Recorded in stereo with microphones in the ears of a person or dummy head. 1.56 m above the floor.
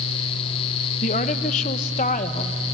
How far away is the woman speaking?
About 1.2 m.